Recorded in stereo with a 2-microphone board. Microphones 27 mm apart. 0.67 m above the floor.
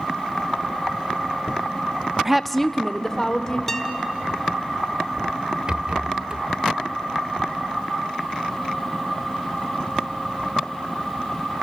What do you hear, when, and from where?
2.2 s a woman speaking: 15° right (ahead or behind), 0.6 m; by 3.6 s 20° left (ahead or behind), 2.5 m
3.7 s a guitar: 15° left (ahead or behind), 1.1 m
5.7 s a rattle: 35° right (ahead or behind), 0.5 m